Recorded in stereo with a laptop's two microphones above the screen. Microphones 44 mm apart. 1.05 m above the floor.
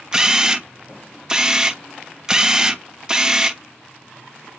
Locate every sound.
0.1 s a camera shutter: 15° right (ahead or behind), 0.6 m